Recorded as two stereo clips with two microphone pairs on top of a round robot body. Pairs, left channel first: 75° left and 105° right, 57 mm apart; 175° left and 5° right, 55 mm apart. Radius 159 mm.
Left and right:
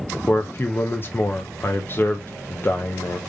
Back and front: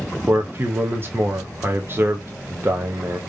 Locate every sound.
0.3 s a man speaking: 40° left, 0.7 m